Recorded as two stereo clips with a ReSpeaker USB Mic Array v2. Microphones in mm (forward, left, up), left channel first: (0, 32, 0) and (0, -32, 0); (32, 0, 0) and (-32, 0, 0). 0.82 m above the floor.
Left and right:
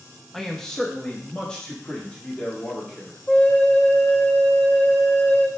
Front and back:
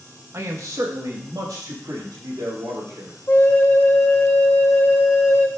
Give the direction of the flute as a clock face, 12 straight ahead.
11 o'clock.